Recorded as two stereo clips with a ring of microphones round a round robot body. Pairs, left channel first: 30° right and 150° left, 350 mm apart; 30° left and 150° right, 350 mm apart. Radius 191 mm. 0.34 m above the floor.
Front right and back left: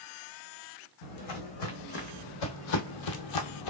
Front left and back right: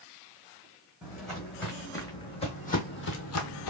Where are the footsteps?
60° right, 1.9 m; by 3.7 s 5° right, 0.9 m.